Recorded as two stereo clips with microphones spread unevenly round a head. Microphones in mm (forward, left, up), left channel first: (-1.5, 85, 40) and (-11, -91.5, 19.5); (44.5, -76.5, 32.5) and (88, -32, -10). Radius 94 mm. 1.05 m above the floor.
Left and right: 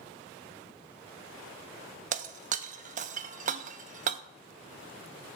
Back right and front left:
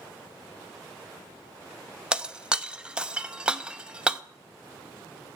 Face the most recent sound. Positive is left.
turn(degrees=-40)